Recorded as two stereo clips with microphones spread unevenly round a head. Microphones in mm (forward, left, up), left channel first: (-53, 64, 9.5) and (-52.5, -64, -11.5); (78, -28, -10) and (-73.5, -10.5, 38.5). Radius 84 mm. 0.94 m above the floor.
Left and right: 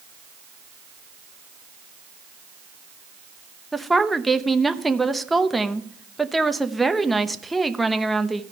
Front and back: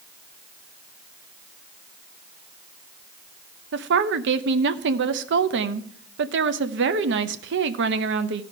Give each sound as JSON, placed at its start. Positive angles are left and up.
{"t": 3.7, "sound": "a woman speaking", "azimuth_deg": -175, "distance_m": 0.7}